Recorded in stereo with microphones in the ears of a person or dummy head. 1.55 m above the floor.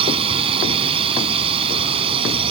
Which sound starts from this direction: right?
A drone, at 0.0 s.